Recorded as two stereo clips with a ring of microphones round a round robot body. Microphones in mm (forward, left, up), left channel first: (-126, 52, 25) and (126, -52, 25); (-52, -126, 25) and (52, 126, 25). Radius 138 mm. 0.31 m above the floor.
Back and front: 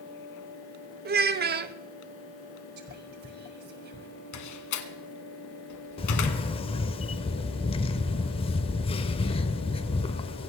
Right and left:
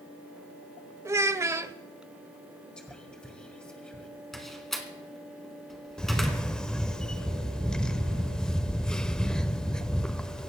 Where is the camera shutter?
165° left, 0.6 m.